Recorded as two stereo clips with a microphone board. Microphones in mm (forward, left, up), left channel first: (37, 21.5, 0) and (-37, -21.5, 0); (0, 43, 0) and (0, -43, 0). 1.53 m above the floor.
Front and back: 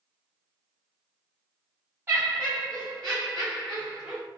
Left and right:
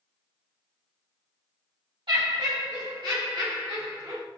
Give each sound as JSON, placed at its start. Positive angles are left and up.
{"t": 2.1, "sound": "laughter", "azimuth_deg": -90, "distance_m": 1.2}